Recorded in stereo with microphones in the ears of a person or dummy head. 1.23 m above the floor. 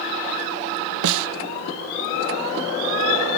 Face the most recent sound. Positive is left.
turn(degrees=-70)  # may be behind; listen again after turning